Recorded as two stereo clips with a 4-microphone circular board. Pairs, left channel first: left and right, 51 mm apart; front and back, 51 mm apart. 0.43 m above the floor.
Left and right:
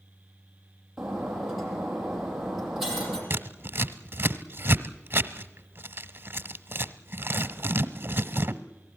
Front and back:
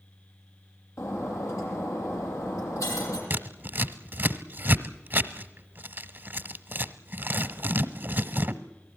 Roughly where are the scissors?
Behind right.